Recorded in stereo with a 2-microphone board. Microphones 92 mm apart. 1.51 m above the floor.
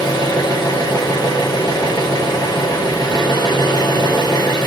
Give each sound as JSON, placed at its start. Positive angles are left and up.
{"t": 0.0, "sound": "an engine running", "side_deg": 45, "distance_m": 1.0}